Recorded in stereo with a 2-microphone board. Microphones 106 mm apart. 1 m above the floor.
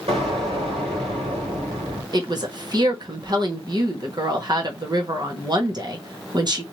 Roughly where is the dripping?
No dripping in this recording.